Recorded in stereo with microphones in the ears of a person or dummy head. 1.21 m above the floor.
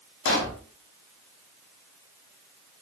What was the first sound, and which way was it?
A pop, 65° left (ahead or behind).